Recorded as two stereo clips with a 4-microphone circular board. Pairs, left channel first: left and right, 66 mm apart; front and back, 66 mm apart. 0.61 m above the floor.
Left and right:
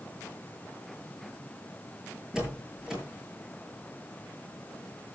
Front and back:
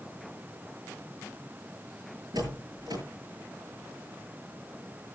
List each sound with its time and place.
2.3 s a door slam: 170° right, 8 m